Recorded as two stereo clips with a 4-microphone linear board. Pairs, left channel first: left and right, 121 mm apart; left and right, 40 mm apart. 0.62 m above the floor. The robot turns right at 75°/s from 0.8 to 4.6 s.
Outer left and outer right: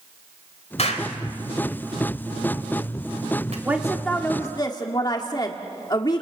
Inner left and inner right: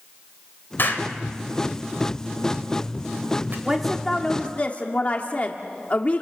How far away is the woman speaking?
About 1.6 m.